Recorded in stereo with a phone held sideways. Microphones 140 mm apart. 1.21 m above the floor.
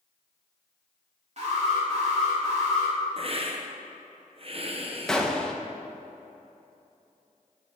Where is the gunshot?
5° left (ahead or behind), 0.8 m.